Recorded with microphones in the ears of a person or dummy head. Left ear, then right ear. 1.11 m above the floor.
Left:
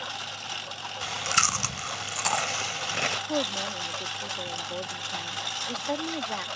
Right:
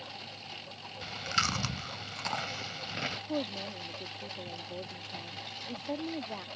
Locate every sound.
0.0 s a lawn mower: 50° left (ahead or behind)
1.0 s chewing: 35° left (ahead or behind)
3.3 s a woman speaking: 55° left (ahead or behind)